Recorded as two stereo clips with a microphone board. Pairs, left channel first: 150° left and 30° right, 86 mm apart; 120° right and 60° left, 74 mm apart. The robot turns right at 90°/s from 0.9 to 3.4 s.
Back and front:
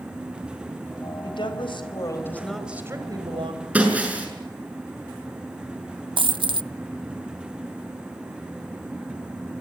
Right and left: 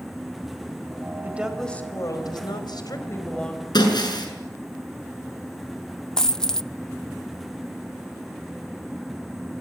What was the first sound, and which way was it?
A woman speaking, 120° left.